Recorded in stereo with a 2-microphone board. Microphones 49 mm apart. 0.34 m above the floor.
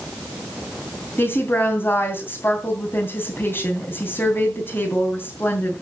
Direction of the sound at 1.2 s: 50° left (ahead or behind).